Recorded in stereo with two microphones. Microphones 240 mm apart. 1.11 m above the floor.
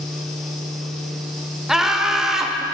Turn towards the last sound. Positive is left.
turn(degrees=0)  # may be behind; listen again after turning